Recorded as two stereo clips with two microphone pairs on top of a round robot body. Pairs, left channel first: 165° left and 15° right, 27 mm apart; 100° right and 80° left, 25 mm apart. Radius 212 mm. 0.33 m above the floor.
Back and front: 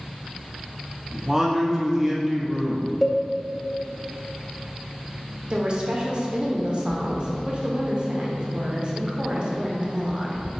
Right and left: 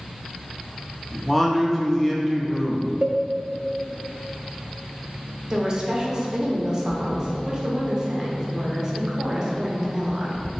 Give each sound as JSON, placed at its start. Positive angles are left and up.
{"t": 1.1, "sound": "a man speaking", "azimuth_deg": -70, "distance_m": 0.9}
{"t": 3.0, "sound": "a cowbell", "azimuth_deg": 85, "distance_m": 0.6}
{"t": 5.5, "sound": "a woman speaking", "azimuth_deg": 10, "distance_m": 0.9}